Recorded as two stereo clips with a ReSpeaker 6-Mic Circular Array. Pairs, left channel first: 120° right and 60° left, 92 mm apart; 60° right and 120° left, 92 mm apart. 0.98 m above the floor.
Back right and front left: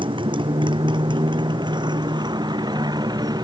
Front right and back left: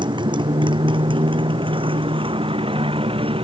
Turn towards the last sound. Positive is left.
turn(degrees=105)